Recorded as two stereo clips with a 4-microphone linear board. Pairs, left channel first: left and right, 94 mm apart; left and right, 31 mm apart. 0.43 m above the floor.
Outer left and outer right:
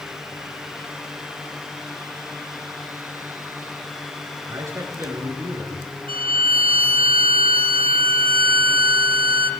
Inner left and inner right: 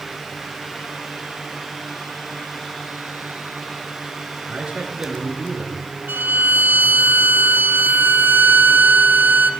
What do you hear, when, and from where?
4.5 s a man speaking: 30° right (ahead or behind), 5.5 m
6.1 s a violin: 75° right (ahead or behind), 1.9 m